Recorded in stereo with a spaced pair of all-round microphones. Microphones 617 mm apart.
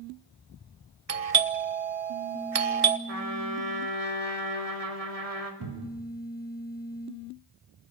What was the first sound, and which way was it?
A doorbell, 65° right (ahead or behind).